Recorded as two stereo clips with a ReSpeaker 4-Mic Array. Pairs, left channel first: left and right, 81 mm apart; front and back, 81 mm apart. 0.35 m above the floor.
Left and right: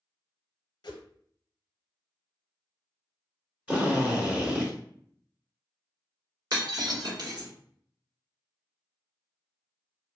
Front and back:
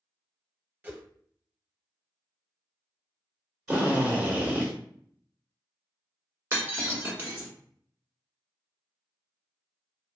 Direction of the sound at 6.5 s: 120° right.